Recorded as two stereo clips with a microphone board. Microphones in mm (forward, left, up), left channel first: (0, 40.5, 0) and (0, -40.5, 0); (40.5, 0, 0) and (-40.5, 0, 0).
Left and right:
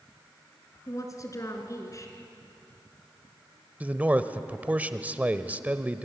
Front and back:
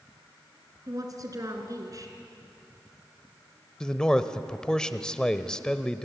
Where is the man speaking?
65° right, 1.0 m.